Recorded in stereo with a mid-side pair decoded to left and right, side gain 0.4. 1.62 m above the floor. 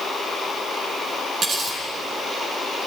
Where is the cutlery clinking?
60° right, 9 m.